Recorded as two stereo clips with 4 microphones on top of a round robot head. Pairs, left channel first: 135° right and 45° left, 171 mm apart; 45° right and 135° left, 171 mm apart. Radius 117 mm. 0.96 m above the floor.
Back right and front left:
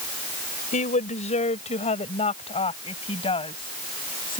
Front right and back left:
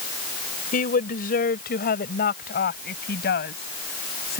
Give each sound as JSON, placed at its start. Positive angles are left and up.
{"t": 0.7, "sound": "a woman speaking", "azimuth_deg": -85}